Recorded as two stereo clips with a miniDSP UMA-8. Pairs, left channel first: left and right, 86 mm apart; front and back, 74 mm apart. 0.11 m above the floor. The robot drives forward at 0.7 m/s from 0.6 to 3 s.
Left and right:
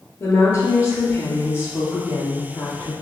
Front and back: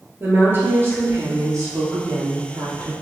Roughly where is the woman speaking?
Behind left.